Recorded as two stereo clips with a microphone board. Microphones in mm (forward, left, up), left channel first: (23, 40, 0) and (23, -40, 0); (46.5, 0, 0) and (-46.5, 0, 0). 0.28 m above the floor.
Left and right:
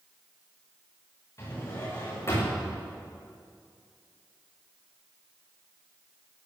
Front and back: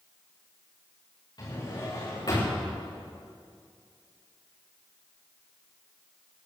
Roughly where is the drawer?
Ahead left.